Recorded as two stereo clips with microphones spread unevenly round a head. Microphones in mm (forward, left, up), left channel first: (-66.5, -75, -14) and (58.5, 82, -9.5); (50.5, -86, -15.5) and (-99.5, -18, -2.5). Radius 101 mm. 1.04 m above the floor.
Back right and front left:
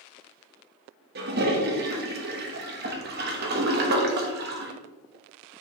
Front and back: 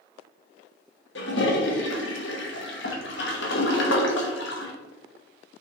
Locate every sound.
1.1 s a toilet flushing: 10° left, 1.0 m